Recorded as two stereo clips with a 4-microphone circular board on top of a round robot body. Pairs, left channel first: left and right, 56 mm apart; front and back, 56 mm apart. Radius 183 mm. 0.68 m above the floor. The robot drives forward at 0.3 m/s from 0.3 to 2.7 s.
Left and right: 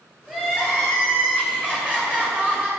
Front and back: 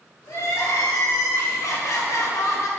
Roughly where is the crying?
Ahead.